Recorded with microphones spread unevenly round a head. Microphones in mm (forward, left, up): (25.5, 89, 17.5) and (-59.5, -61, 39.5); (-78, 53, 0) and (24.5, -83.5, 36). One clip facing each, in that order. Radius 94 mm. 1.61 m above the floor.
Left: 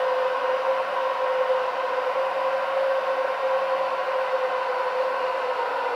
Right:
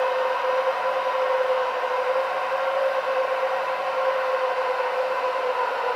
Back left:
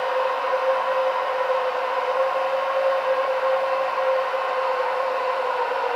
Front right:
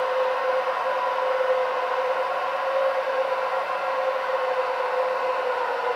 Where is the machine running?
115° right, 1.4 m.